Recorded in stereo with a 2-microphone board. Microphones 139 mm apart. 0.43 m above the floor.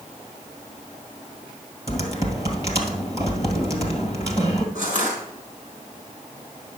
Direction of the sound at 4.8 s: 70° right (ahead or behind).